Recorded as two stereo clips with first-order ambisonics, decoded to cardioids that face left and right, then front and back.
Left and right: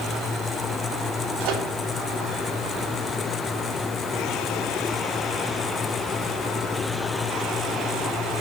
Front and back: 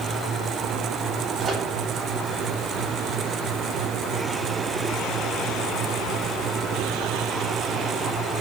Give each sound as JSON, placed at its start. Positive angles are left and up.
{"t": 1.4, "sound": "a microwave", "azimuth_deg": -110, "distance_m": 3.0}